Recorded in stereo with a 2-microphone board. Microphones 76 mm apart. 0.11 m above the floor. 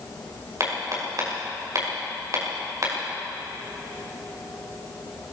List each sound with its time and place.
0.6 s hammering: 45° right (ahead or behind), 8.5 m